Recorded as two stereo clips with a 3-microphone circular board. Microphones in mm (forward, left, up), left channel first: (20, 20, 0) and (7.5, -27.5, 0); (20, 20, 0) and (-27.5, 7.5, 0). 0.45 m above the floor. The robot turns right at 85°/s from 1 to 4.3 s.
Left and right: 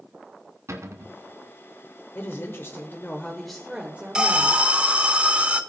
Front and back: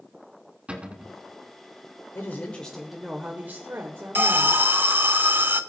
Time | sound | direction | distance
0.7 | a cupboard door | 100° right | 1.3 m
2.1 | a woman speaking | 50° left | 1.2 m
4.2 | an alarm | 170° right | 0.6 m